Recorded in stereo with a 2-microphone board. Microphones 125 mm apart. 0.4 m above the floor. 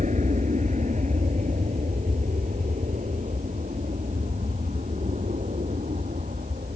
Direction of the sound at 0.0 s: 75° right (ahead or behind).